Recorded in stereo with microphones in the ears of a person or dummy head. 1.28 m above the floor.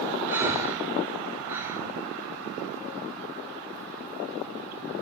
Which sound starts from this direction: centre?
Breathing, at 0.3 s.